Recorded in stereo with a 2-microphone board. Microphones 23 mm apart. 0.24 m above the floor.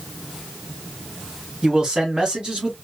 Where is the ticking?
No ticking in this recording.